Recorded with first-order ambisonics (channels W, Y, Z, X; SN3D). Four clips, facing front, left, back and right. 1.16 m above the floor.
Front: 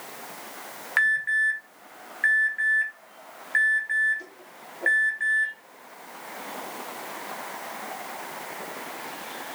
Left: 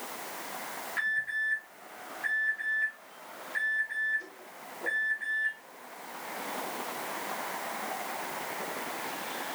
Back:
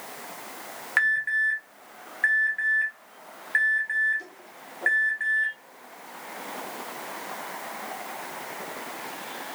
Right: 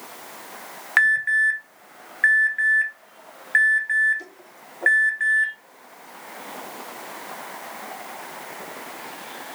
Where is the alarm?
95° right, 1.0 m.